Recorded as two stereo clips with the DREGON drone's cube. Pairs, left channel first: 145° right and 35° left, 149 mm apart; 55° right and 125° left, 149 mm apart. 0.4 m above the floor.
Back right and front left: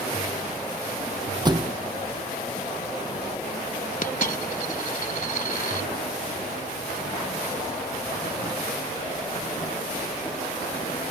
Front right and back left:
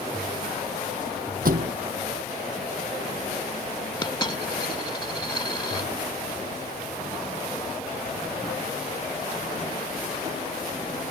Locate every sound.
1.4 s a thud: 95° left
4.0 s a dropped coin: 115° right